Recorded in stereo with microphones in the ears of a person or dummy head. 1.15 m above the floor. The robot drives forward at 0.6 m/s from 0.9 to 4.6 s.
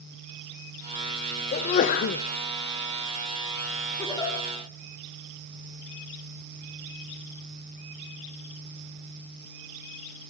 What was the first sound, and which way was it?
A sneeze, 40° left (ahead or behind).